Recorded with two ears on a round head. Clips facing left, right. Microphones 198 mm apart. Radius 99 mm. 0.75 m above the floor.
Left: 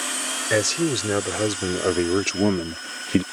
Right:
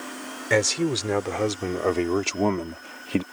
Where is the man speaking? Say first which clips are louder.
Left 1 dB; 10° left (ahead or behind); by 3.2 s 25° left (ahead or behind).